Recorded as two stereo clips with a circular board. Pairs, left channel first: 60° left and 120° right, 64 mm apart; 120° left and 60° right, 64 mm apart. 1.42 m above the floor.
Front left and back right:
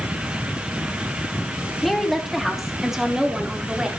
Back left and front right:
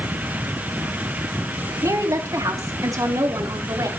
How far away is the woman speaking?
About 2.5 m.